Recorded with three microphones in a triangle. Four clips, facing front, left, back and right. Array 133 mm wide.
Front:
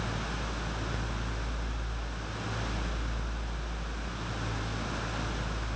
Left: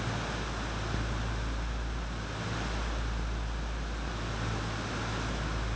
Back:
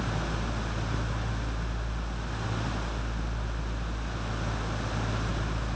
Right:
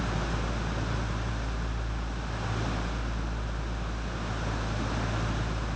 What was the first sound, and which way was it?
Only background noise.